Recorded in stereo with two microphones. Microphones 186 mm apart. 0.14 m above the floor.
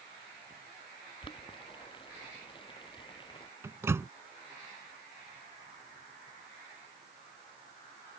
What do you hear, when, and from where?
1.2 s boiling: 25° left (ahead or behind)
3.6 s a microwave: 15° right (ahead or behind)